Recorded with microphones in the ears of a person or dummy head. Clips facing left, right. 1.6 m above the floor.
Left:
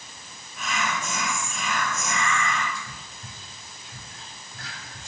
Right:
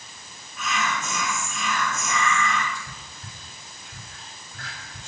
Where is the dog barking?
I don't hear a dog barking.